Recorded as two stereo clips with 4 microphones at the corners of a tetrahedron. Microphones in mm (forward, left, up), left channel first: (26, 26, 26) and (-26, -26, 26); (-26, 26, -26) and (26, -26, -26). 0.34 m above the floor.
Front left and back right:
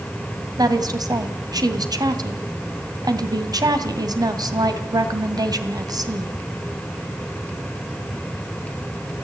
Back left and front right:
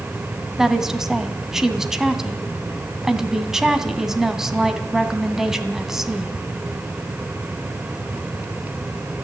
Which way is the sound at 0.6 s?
130° right.